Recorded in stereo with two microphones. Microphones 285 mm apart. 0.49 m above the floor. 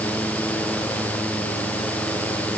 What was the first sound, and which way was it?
Only background noise.